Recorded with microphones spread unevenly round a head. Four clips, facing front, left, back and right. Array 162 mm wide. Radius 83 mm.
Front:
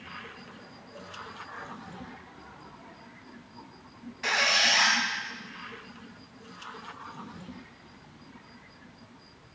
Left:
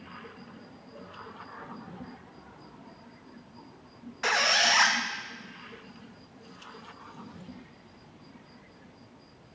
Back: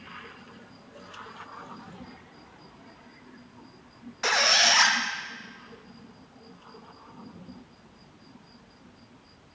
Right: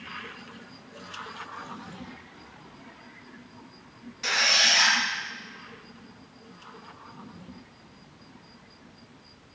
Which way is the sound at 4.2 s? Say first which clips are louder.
Left 2 dB, back 3 dB; 170° left.